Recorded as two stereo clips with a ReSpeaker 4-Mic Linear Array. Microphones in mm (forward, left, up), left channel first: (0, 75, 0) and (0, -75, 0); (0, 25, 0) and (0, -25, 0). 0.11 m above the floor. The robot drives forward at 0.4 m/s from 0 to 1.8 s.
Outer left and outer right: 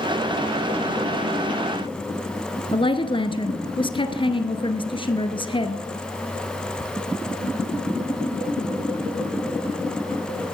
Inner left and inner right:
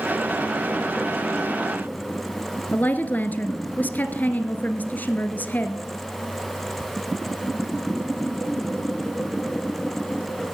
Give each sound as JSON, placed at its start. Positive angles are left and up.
{"t": 2.7, "sound": "a woman speaking", "side_deg": 35, "distance_m": 1.5}